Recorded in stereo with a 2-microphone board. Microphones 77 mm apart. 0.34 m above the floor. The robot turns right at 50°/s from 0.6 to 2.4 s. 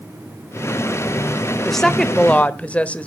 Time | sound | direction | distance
1.6 | a woman speaking | centre (ahead or behind) | 0.9 m